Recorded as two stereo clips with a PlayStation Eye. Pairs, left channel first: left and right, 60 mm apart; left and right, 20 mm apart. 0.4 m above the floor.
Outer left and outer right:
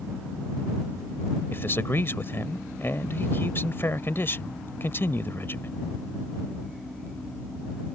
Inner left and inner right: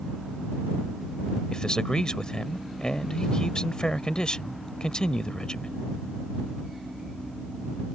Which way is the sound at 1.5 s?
40° left (ahead or behind).